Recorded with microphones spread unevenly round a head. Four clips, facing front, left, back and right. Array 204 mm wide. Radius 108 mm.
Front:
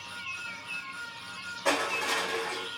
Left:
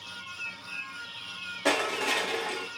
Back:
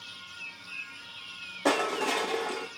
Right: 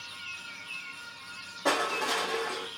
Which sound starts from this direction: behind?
Crushing, at 1.6 s.